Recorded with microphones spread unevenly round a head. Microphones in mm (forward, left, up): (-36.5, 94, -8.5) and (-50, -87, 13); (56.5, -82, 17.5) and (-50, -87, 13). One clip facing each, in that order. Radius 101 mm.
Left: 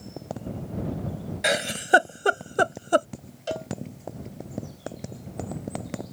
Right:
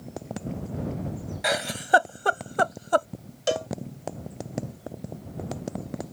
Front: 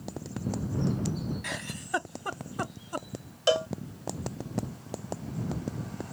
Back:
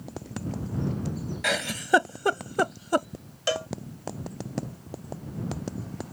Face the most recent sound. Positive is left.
turn(degrees=-65)